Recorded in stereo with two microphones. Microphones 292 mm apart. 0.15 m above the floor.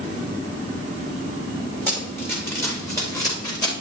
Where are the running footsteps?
5° left (ahead or behind), 4.5 m; by 3.7 s 15° left (ahead or behind), 5 m.